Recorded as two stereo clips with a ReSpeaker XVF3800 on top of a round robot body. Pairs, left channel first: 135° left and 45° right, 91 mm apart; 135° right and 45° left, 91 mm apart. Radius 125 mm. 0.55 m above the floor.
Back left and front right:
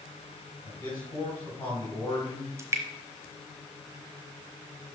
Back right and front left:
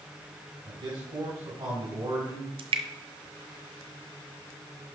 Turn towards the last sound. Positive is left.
turn(degrees=20)